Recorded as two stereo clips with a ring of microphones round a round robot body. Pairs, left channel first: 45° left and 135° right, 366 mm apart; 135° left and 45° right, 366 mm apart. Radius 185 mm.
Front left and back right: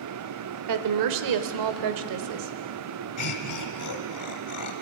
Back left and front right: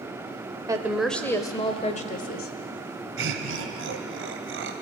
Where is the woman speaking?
120° right, 1.1 m; by 2.5 s 160° right, 1.7 m.